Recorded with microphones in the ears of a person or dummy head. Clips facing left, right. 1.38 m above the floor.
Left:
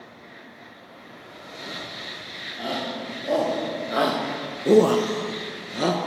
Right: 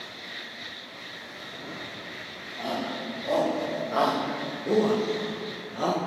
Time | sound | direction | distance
2.6 | a shout | 15° left (ahead or behind) | 4 m